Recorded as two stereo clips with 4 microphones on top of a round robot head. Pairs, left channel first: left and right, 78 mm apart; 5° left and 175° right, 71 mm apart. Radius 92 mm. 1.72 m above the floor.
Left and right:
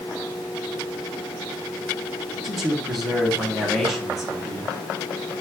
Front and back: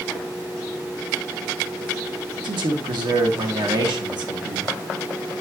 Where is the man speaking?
Straight behind, 2.5 m.